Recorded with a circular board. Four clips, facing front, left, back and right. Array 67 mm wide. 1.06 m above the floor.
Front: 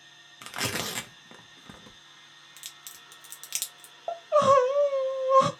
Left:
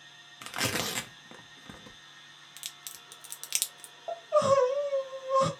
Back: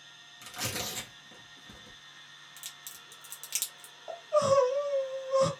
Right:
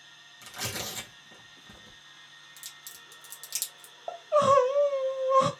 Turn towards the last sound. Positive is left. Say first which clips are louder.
# right 2 dB, front 5 dB
turn(degrees=-25)